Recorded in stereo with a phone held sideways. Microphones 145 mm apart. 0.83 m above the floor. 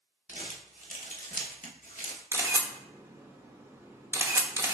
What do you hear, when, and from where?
0.3 s crumpling: 65° left (ahead or behind), 1.0 m
2.3 s a camera shutter: 15° right (ahead or behind), 0.8 m